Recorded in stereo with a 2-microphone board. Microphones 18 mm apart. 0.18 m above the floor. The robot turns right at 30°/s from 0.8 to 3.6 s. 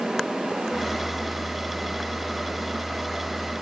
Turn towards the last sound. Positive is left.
No sound to turn to.